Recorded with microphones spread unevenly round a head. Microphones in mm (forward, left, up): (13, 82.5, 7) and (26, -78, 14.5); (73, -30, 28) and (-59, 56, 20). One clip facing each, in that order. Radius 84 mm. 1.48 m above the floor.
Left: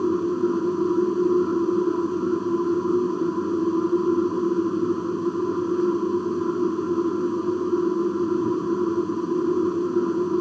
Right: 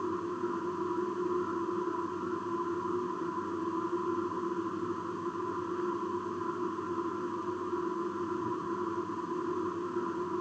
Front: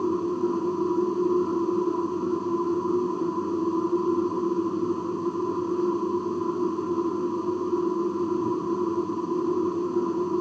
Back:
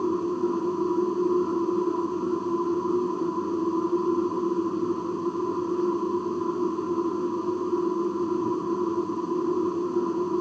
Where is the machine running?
55° left.